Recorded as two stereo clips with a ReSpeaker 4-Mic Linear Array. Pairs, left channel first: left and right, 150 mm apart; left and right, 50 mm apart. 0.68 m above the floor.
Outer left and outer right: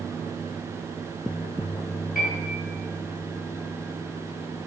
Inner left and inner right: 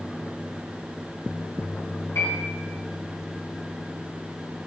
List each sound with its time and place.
2.1 s a piano: 70° left (ahead or behind), 3.5 m